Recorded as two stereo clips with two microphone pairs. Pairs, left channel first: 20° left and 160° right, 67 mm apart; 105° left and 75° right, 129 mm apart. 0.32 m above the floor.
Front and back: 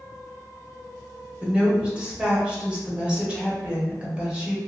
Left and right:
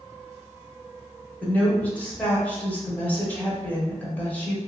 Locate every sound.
1.4 s a woman speaking: 155° left, 0.9 m